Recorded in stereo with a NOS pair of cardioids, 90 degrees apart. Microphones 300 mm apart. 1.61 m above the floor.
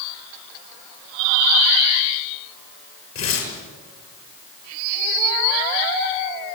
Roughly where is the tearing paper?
Ahead left.